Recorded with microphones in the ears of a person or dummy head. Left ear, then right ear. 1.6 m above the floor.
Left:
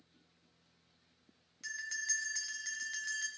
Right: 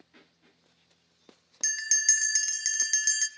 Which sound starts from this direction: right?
A bell, at 1.6 s.